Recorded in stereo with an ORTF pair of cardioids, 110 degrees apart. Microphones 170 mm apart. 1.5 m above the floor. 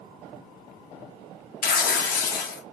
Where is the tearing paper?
60° left, 1.4 m.